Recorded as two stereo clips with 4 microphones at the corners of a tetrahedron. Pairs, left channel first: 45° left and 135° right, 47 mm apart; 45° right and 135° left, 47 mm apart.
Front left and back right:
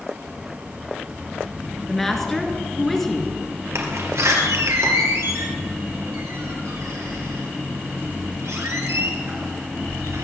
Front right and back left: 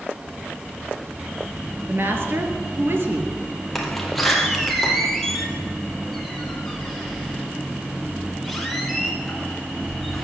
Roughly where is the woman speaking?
Behind left.